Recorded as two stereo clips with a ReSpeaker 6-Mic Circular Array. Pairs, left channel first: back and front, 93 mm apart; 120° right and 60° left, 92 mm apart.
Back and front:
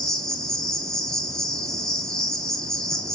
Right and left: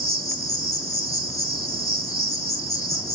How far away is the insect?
About 0.8 m.